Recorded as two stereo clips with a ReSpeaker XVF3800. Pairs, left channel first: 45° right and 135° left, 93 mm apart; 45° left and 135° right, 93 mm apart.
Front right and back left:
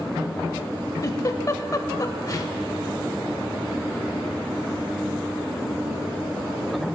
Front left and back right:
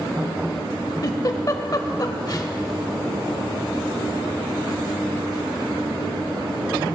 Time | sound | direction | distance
1.0 | a giggle | straight ahead | 0.6 m